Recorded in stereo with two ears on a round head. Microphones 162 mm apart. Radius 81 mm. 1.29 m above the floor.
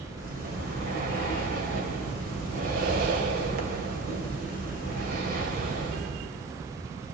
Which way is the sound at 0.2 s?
50° right (ahead or behind).